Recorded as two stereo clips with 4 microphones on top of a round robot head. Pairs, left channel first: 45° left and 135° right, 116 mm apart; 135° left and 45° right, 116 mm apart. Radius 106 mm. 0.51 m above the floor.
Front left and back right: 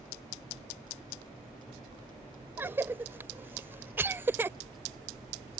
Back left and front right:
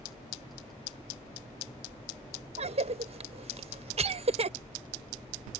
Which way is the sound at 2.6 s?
65° right.